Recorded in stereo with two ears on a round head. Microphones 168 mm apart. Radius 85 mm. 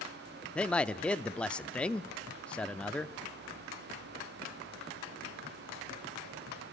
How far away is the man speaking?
About 0.7 m.